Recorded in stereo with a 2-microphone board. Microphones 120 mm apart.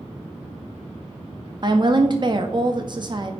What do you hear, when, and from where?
1.6 s a woman speaking: 40° right (ahead or behind), 0.6 m